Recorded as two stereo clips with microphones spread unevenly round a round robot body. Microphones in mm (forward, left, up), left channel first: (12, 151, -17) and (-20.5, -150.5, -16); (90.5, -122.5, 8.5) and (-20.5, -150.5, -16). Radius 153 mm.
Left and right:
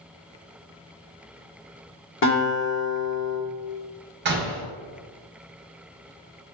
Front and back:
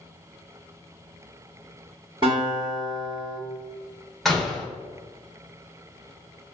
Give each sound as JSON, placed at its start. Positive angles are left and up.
{"t": 2.2, "sound": "a guitar", "azimuth_deg": 130, "distance_m": 1.0}
{"t": 4.2, "sound": "a door slam", "azimuth_deg": -90, "distance_m": 0.6}